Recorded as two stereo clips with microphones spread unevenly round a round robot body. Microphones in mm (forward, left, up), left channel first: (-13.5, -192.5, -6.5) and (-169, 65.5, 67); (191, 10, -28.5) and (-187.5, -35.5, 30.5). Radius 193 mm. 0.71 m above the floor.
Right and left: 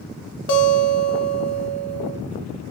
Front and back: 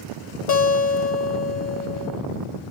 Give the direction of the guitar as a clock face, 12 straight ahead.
1 o'clock.